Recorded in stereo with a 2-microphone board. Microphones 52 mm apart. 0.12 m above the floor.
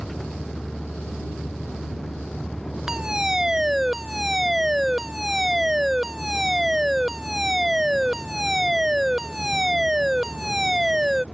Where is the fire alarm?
10° right (ahead or behind).